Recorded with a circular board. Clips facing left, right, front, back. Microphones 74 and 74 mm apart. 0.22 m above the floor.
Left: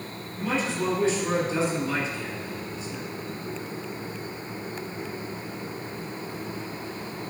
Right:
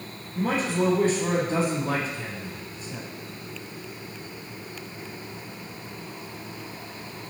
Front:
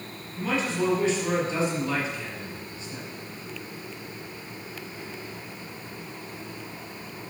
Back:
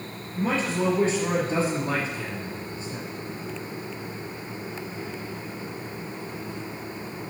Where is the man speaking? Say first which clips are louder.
Right 3 dB, back 1 dB; 130° right, 4 m.